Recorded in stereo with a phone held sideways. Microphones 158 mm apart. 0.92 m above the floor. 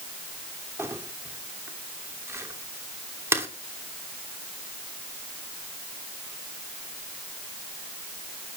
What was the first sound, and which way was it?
Crumpling, 15° right (ahead or behind).